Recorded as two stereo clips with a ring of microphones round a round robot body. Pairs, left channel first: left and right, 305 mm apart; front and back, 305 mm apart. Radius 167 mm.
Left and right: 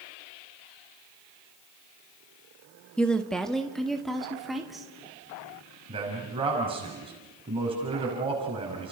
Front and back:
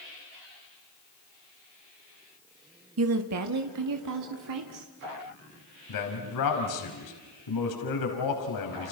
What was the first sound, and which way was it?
A woman speaking, 175° left.